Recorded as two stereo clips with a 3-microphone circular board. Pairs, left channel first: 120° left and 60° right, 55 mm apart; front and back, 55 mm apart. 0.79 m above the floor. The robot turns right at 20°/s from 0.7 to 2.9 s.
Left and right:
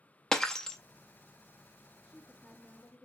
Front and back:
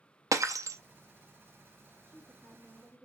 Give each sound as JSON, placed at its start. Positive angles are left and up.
{"t": 0.3, "sound": "breaking glass", "azimuth_deg": -160, "distance_m": 0.5}
{"t": 2.0, "sound": "a woman speaking", "azimuth_deg": 40, "distance_m": 2.0}